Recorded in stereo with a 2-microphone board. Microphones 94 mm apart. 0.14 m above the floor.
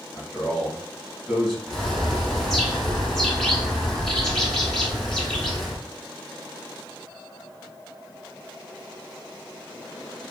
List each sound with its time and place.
0.1 s a man speaking: centre (ahead or behind), 1.6 m
1.7 s a bird: 5° left (ahead or behind), 1.0 m